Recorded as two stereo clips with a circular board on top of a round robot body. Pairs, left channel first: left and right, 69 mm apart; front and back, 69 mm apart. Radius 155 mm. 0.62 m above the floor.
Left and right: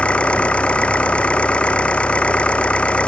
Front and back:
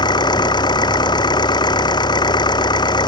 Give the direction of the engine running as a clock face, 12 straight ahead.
11 o'clock.